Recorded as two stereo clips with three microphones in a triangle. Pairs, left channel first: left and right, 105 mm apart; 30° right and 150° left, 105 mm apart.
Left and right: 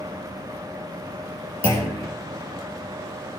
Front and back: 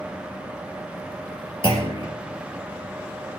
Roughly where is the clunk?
Ahead right.